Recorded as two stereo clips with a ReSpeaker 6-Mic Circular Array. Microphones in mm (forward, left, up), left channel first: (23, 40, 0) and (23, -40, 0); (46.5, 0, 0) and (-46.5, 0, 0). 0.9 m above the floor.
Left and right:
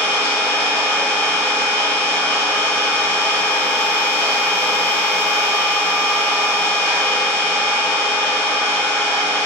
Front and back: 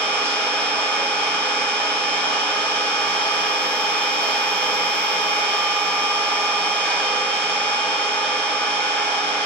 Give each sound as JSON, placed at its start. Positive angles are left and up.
{"t": 0.0, "sound": "an engine running", "azimuth_deg": 65, "distance_m": 0.7}